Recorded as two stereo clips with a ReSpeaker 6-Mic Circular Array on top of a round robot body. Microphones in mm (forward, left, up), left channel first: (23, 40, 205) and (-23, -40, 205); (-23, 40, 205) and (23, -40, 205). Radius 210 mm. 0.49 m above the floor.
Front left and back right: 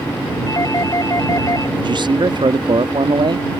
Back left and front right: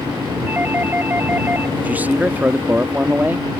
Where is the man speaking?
130° right.